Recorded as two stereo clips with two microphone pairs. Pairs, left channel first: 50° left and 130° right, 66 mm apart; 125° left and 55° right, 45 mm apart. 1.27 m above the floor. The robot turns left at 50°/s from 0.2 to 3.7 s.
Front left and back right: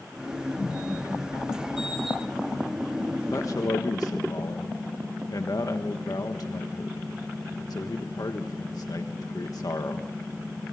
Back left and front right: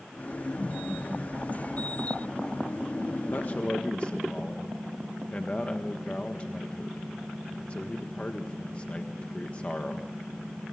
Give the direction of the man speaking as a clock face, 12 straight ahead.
9 o'clock.